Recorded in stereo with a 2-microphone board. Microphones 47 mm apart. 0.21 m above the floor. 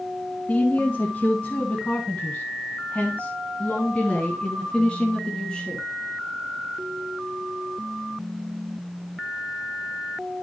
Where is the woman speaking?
35° left (ahead or behind), 2.5 m; by 5.8 s 20° left (ahead or behind), 3 m.